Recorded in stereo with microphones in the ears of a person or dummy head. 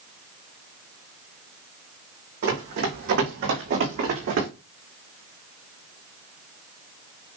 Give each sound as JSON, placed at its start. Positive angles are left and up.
{"t": 2.4, "sound": "running footsteps", "side_deg": -65, "distance_m": 4.0}